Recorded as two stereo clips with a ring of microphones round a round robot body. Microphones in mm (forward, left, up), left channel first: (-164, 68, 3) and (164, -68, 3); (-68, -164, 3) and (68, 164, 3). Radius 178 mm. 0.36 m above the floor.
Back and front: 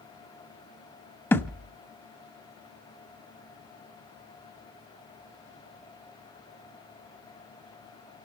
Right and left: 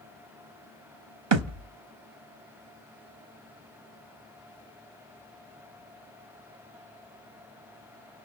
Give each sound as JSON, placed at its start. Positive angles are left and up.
{"t": 1.3, "sound": "a thud", "azimuth_deg": 75, "distance_m": 1.0}